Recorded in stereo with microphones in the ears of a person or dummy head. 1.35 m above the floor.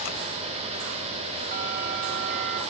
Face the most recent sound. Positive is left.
turn(degrees=-40)  # may be behind; listen again after turning